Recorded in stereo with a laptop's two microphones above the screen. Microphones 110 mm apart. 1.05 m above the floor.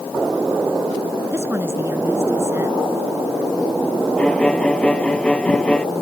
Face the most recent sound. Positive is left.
turn(degrees=10)  # may be behind; listen again after turning